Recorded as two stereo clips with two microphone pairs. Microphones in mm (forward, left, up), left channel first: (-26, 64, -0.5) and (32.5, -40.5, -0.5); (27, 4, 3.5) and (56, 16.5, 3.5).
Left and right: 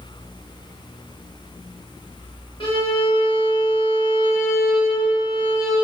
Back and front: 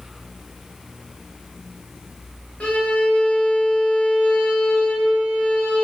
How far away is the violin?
About 1.1 m.